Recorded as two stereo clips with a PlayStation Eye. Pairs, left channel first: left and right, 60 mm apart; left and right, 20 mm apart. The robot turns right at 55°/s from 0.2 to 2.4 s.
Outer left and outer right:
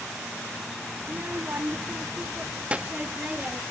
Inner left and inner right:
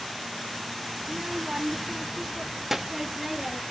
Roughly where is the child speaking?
Right.